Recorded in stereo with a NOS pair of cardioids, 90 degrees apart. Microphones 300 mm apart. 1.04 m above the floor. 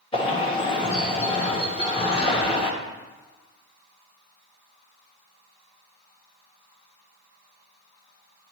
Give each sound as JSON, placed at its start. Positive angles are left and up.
{"t": 0.1, "sound": "a bird", "azimuth_deg": 20, "distance_m": 1.3}